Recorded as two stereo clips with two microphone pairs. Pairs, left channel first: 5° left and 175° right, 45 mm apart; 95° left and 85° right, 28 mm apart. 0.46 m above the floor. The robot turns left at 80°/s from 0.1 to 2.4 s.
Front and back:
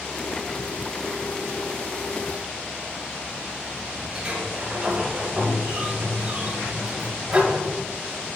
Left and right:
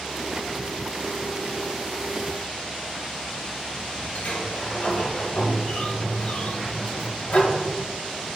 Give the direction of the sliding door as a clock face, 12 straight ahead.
8 o'clock.